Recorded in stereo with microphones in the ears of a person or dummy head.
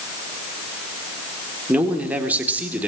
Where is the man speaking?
10° right (ahead or behind), 3.5 m.